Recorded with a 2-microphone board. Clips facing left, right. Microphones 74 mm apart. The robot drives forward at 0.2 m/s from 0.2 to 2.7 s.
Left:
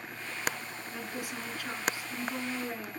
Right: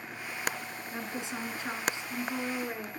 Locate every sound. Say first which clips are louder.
0.9 s a woman speaking: right 2 dB; 25° right (ahead or behind), 1.2 m